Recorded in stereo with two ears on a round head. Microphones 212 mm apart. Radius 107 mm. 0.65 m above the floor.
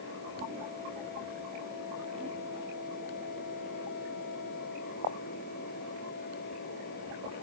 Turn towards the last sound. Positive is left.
No sound to turn to.